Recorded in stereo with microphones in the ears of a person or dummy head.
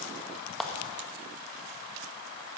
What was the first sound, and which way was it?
A clap, 5° left (ahead or behind).